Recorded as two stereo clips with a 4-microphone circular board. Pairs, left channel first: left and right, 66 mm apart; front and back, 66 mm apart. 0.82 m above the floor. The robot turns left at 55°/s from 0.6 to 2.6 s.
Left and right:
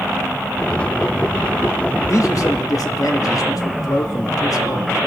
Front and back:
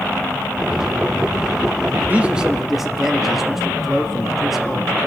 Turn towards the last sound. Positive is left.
turn(degrees=95)